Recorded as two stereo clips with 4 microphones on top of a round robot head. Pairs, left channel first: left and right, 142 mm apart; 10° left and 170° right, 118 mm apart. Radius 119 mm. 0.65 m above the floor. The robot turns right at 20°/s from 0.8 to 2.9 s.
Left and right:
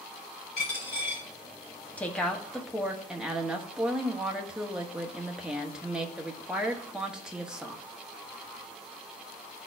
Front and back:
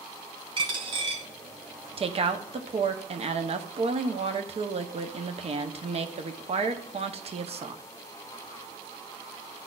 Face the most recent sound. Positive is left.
turn(degrees=-175)